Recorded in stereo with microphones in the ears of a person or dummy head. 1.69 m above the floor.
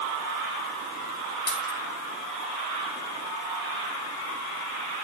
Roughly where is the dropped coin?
Left.